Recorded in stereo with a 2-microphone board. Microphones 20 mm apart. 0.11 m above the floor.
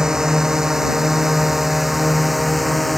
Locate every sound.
0.0 s a drone: 25° right (ahead or behind); by 3.0 s 5° left (ahead or behind)